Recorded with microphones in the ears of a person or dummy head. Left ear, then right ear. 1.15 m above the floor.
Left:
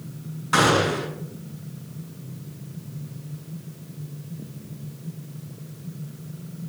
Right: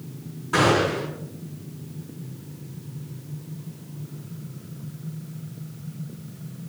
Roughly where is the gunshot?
Left.